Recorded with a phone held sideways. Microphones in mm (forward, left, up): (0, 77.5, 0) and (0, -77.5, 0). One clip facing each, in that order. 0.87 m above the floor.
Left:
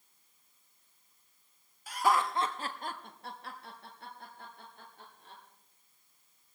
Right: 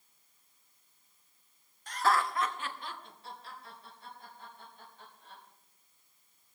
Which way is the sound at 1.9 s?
5° left (ahead or behind).